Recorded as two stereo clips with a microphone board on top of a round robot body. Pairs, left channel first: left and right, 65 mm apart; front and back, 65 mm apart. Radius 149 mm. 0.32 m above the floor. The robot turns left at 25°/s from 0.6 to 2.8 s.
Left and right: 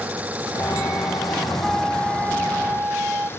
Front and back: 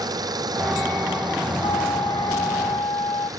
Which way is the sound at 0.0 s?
160° right.